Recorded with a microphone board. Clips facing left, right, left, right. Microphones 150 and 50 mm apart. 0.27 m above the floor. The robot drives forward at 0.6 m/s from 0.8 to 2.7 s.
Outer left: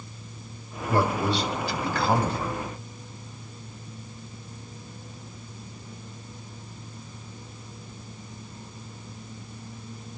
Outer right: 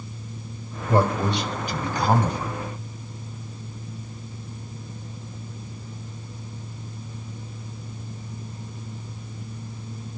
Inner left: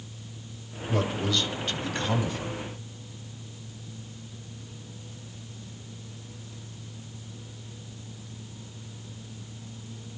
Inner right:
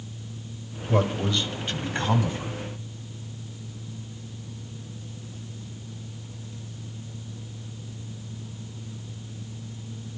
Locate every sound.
0.9 s a man speaking: 20° right (ahead or behind), 1.7 m; by 2.5 s 15° right (ahead or behind), 2 m